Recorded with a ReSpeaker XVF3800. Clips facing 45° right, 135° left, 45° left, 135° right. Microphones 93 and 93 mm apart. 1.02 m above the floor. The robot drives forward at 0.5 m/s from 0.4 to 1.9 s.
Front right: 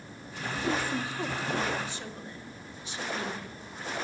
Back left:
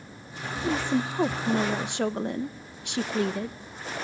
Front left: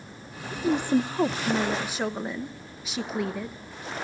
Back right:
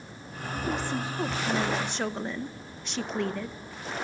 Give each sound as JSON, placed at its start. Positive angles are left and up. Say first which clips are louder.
{"t": 0.5, "sound": "a woman speaking", "louder": "back left 4 dB, front left 7 dB", "azimuth_deg": 55, "distance_m": 0.6}